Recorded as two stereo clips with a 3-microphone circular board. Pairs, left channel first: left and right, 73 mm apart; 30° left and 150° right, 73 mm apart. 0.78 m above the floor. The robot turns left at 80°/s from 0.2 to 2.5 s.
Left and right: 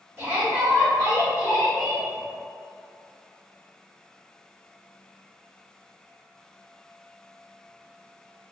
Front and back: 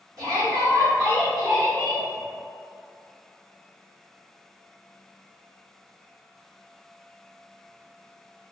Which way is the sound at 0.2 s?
145° right.